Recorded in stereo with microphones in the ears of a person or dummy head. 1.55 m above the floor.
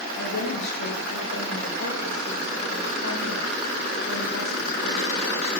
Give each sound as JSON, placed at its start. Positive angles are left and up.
{"t": 0.2, "sound": "a woman speaking", "side_deg": 80, "distance_m": 5.5}